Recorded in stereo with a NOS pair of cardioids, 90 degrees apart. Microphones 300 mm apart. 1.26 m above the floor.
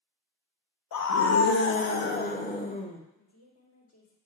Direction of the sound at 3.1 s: 55° left.